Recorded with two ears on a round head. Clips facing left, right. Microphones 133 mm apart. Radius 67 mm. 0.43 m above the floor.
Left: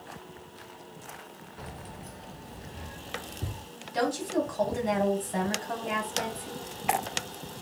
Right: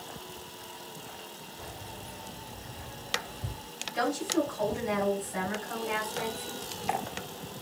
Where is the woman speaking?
65° left (ahead or behind), 3.5 m.